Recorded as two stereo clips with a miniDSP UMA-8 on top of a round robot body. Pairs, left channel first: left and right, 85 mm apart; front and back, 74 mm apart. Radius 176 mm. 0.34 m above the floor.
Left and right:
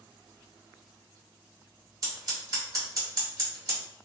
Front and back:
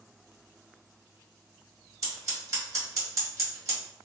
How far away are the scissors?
About 1.9 m.